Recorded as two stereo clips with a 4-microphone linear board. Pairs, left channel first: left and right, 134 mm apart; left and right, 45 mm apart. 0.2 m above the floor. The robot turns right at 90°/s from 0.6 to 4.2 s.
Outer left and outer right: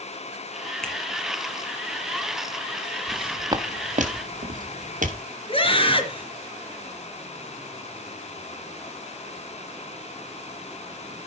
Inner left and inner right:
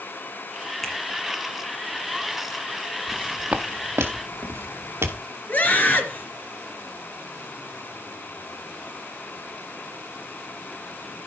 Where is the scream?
45° left (ahead or behind), 3 m.